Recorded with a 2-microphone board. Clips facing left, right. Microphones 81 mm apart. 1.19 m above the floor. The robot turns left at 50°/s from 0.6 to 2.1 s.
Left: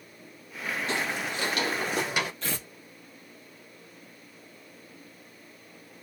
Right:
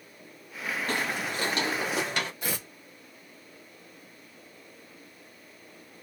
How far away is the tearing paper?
About 1.8 m.